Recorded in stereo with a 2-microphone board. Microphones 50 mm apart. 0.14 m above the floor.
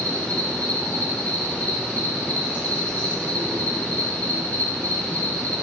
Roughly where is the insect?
Left.